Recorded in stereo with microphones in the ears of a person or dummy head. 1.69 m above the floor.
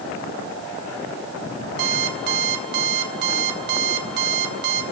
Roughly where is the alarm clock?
Right.